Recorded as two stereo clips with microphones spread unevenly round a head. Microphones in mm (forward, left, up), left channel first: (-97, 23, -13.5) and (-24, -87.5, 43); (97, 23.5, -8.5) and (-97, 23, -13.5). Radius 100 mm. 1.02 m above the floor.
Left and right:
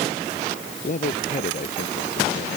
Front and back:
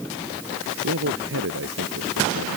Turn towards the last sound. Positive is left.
turn(degrees=160)